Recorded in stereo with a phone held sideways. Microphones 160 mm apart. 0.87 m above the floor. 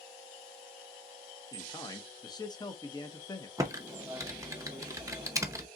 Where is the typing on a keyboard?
20° right (ahead or behind), 0.6 m.